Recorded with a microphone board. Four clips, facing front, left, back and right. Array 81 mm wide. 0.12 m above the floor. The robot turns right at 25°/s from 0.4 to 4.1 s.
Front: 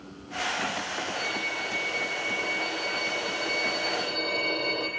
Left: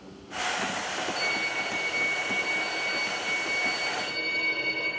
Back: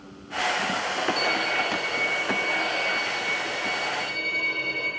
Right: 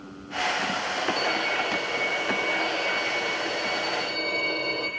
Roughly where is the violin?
Behind right.